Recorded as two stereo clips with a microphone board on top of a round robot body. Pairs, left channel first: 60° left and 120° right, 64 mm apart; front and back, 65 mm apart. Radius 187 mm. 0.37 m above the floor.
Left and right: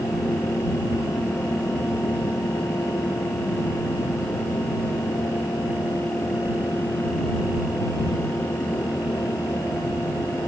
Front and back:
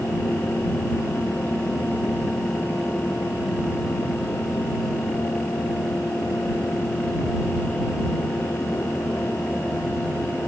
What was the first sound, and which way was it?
Only background noise.